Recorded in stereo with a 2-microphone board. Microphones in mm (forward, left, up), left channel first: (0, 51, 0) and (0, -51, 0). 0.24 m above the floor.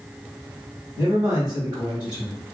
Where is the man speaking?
15° right (ahead or behind), 1.2 m.